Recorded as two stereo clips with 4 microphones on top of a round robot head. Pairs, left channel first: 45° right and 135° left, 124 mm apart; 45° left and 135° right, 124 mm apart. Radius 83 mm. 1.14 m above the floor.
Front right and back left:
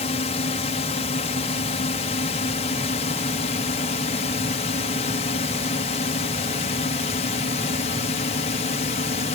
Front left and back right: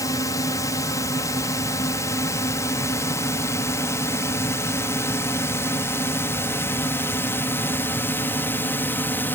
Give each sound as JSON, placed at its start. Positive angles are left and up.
{"t": 0.0, "sound": "a drone", "azimuth_deg": -15}